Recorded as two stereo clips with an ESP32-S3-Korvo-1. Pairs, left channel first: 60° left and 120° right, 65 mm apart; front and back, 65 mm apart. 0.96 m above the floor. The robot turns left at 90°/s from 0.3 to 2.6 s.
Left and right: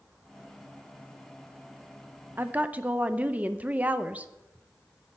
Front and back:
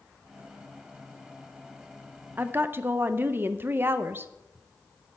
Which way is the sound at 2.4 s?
145° right.